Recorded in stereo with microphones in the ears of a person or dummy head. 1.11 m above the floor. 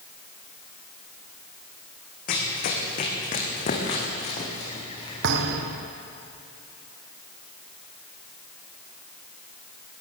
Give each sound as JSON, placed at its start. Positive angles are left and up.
{"t": 2.3, "sound": "running footsteps", "side_deg": 50, "distance_m": 4.0}
{"t": 5.2, "sound": "a thud", "side_deg": -60, "distance_m": 2.0}